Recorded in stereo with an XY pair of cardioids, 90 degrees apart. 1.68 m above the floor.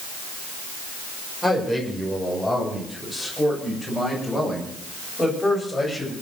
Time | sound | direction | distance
1.4 | a man speaking | straight ahead | 6 m